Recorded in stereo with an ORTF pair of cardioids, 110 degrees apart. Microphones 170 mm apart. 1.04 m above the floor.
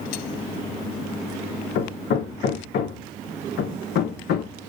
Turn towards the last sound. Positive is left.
turn(degrees=65)